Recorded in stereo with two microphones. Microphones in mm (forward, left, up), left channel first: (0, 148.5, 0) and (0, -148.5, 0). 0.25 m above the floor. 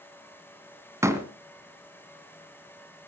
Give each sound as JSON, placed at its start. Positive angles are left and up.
{"t": 1.0, "sound": "a door slam", "side_deg": -10, "distance_m": 1.6}